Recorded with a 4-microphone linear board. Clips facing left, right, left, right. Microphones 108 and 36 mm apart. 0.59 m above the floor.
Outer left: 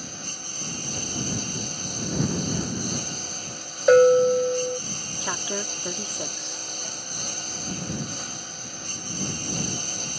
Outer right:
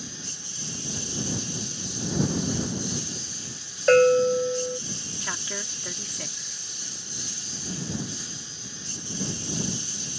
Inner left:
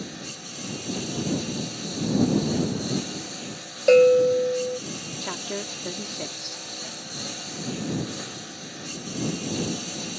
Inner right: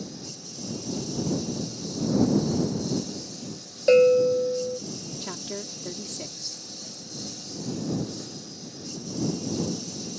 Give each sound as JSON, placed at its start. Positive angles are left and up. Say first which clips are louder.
{"t": 0.0, "sound": "a lawn mower", "louder": "outer left 2 dB, inner left 3 dB", "side_deg": 55}
{"t": 3.9, "sound": "a bell", "louder": "outer left 2 dB, inner left 2 dB", "side_deg": 10}
{"t": 5.2, "sound": "a woman speaking", "louder": "outer left 7 dB, inner left 6 dB", "side_deg": 25}